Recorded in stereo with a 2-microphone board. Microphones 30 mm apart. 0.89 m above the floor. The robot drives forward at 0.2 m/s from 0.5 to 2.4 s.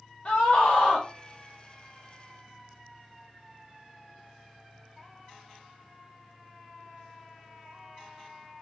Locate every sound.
0.2 s a scream: 40° left (ahead or behind), 0.8 m